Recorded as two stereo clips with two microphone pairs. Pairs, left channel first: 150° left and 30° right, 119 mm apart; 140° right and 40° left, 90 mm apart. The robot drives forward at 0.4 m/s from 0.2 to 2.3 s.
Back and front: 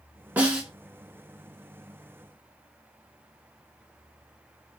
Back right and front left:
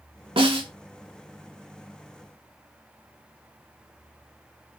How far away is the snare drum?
About 0.8 m.